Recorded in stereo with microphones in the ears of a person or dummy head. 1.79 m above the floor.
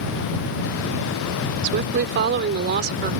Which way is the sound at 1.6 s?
55° right (ahead or behind).